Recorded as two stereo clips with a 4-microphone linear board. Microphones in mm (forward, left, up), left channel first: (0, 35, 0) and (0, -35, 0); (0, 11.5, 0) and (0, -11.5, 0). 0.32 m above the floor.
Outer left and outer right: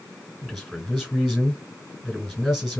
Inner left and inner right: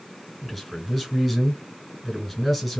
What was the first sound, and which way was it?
A man speaking, 10° left (ahead or behind).